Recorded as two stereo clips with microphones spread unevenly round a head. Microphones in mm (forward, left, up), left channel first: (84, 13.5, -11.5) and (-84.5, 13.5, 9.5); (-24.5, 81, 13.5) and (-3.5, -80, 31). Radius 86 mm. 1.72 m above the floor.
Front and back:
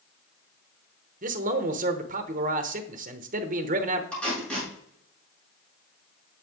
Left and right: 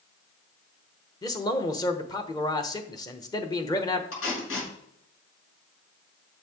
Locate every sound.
1.2 s a man speaking: 165° left, 1.0 m
4.1 s tape being pulled: 85° left, 6 m